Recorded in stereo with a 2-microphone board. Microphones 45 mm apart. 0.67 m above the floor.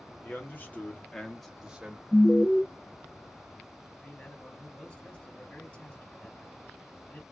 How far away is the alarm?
About 0.7 m.